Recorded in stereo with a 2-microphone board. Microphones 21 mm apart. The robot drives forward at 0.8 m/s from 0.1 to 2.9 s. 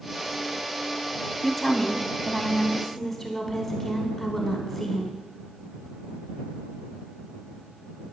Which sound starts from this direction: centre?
A woman speaking, at 1.4 s.